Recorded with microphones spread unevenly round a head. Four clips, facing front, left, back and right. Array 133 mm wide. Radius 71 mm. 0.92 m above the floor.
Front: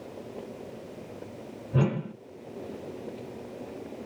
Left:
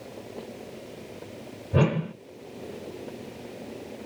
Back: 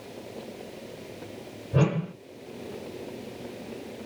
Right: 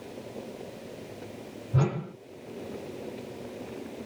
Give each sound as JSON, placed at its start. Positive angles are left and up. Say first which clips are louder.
{"t": 1.7, "sound": "a whoosh", "louder": "left 5 dB, back 2 dB", "azimuth_deg": 115, "distance_m": 1.0}